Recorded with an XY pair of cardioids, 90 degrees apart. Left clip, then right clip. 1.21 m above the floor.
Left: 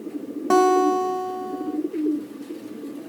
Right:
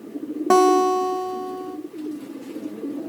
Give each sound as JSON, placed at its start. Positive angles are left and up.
{"t": 0.5, "sound": "a guitar", "azimuth_deg": -35, "distance_m": 1.2}